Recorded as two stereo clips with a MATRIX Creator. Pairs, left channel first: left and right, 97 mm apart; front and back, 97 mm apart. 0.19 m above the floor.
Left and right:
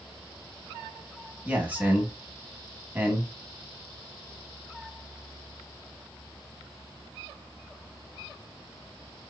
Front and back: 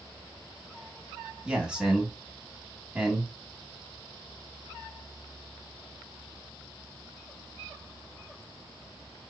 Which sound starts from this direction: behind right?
A man speaking, at 1.4 s.